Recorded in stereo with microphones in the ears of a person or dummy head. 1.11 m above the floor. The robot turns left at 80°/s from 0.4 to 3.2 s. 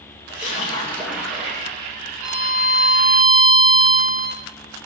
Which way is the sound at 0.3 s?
50° left.